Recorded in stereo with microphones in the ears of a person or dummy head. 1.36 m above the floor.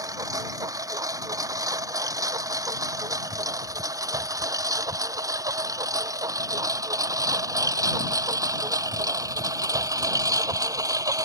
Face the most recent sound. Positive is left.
turn(degrees=-15)  # may be behind; listen again after turning